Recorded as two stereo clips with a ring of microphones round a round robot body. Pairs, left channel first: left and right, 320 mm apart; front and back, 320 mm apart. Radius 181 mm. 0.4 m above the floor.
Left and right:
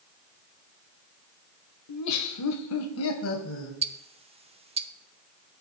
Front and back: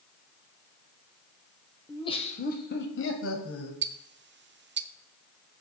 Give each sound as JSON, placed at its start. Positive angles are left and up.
{"t": 1.9, "sound": "laughter", "azimuth_deg": 80, "distance_m": 1.4}
{"t": 3.8, "sound": "ticking", "azimuth_deg": -150, "distance_m": 0.9}